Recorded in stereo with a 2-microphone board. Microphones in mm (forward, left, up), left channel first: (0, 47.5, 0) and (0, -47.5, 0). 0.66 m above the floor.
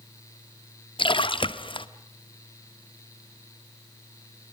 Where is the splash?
55° left (ahead or behind), 0.9 m.